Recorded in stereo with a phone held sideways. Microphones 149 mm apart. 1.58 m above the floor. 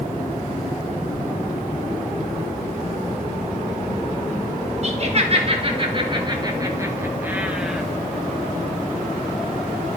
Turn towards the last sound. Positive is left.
turn(degrees=0)  # may be behind; listen again after turning